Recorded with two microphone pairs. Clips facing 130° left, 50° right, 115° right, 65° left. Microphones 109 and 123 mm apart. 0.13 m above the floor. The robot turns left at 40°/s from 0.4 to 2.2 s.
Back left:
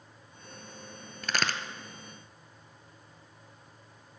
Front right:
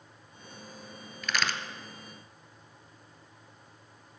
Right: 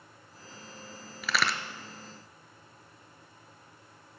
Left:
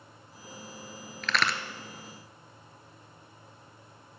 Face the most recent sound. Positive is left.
turn(degrees=130)